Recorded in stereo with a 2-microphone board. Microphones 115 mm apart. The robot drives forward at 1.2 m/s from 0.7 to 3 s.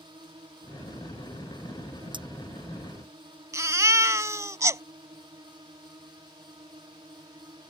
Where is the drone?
45° right (ahead or behind); by 7.7 s 40° right (ahead or behind).